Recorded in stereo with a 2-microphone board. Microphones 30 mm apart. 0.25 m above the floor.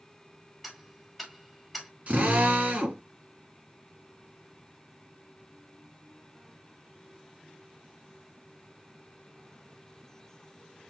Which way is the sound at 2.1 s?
55° right (ahead or behind).